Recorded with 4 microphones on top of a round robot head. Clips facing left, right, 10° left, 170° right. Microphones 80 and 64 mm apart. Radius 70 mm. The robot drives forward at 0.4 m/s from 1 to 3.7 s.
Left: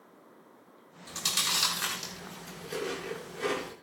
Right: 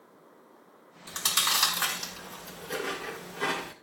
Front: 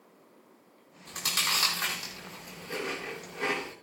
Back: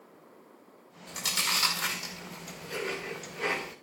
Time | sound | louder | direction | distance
1.1 | chewing | right 5 dB, front 1 dB | 45° right | 6.5 m